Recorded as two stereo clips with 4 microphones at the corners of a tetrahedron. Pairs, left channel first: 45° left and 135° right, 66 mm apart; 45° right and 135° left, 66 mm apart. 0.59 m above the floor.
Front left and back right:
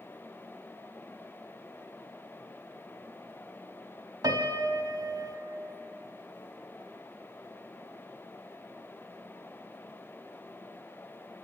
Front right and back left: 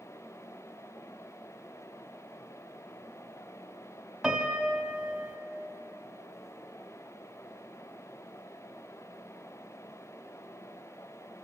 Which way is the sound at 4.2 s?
140° right.